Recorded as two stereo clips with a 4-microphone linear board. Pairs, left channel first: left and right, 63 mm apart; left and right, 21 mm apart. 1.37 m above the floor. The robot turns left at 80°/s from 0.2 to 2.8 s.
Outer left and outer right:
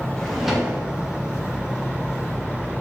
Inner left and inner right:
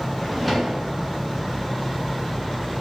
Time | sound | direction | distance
0.2 | a drawer | 15° left | 0.6 m